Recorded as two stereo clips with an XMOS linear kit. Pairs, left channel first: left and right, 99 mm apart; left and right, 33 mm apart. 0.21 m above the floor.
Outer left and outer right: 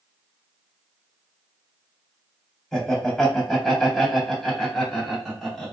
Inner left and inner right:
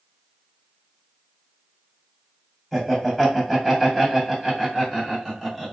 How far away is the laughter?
About 1.6 m.